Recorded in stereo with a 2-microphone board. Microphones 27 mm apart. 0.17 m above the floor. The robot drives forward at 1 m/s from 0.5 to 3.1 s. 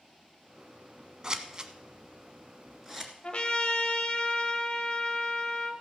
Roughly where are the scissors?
Right.